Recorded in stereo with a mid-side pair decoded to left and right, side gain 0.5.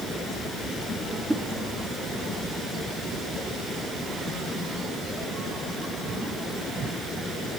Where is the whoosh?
10° right, 3 m.